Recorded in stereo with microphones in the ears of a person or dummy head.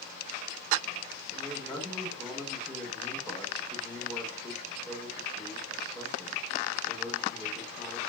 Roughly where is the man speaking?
Centre.